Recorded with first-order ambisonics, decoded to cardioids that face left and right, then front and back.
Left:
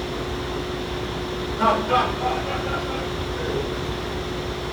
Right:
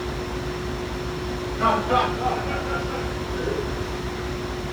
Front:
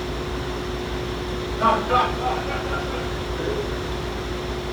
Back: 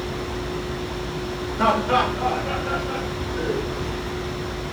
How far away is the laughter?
About 3.5 m.